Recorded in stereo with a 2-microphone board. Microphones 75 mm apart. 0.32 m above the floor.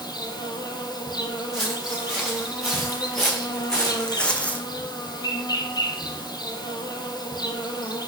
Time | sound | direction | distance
0.0 | an insect | 70° left (ahead or behind) | 0.9 m
1.5 | footsteps | centre (ahead or behind) | 2.5 m